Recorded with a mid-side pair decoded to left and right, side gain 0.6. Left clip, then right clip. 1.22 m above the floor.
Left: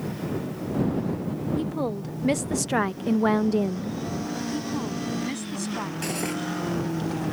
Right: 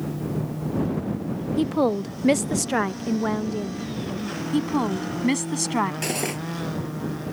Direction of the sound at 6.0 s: 25° right.